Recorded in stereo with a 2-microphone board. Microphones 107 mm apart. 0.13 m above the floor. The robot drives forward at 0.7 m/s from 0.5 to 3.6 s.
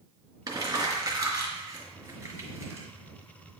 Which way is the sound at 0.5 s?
35° right (ahead or behind).